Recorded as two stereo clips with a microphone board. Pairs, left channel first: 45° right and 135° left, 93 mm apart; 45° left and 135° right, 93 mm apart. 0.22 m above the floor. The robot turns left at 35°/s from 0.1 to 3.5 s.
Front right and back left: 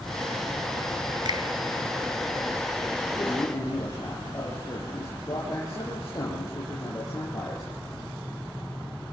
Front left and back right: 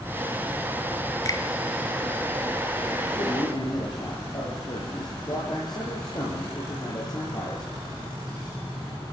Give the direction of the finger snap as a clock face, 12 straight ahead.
9 o'clock.